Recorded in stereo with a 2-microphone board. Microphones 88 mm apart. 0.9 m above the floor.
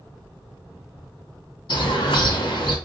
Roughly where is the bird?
Left.